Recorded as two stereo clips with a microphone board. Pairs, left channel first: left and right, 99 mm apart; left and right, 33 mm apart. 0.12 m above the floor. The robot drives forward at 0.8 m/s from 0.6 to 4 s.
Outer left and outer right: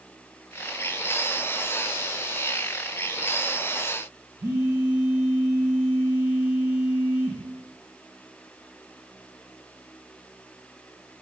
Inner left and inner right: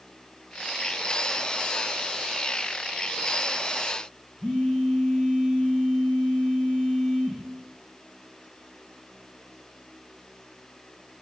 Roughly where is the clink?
No clink in this recording.